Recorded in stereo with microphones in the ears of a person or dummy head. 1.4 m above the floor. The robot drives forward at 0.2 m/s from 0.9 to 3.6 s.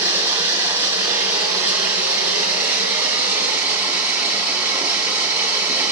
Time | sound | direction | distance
0.0 | running water | 10° right (ahead or behind) | 2.5 m